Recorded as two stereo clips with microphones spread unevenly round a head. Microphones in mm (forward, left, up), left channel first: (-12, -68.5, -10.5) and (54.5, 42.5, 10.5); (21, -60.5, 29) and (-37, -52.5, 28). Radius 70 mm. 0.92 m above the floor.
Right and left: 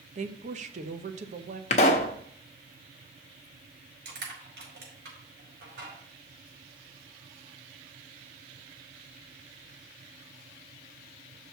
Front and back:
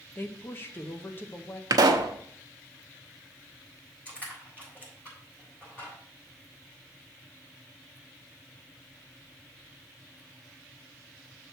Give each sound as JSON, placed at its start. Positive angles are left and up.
{"t": 0.1, "sound": "a woman speaking", "azimuth_deg": 40, "distance_m": 0.9}
{"t": 1.7, "sound": "a pop", "azimuth_deg": -170, "distance_m": 0.9}
{"t": 4.0, "sound": "crushing", "azimuth_deg": 70, "distance_m": 4.5}